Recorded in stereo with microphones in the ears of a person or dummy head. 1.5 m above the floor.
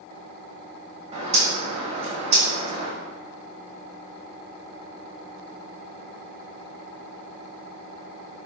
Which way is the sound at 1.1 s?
40° right (ahead or behind).